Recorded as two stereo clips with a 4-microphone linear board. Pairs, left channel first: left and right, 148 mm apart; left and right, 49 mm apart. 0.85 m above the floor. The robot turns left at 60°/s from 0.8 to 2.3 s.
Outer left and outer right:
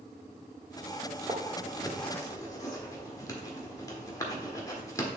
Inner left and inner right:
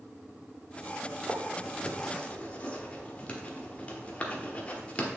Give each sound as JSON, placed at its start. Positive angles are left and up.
{"t": 1.3, "sound": "writing", "side_deg": -35, "distance_m": 1.1}